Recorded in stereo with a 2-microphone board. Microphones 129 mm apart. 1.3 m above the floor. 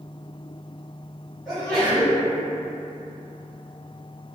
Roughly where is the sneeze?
Centre.